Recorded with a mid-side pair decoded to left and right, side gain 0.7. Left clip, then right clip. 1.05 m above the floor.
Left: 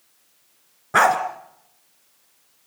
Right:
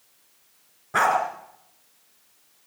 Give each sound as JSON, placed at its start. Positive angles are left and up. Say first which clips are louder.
{"t": 0.9, "sound": "a dog barking", "louder": "left 4 dB", "azimuth_deg": 30, "distance_m": 3.0}